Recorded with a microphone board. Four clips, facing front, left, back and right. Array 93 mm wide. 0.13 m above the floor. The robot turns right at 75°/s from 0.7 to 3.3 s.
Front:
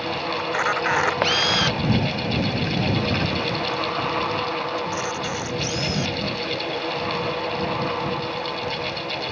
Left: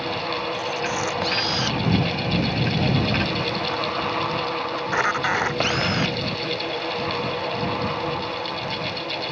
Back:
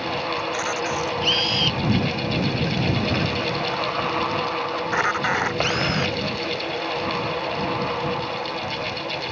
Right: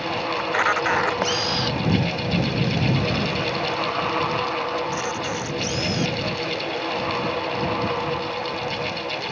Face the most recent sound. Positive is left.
turn(degrees=135)